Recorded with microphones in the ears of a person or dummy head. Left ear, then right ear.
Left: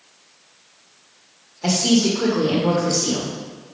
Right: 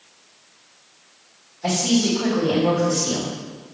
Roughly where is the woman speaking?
Left.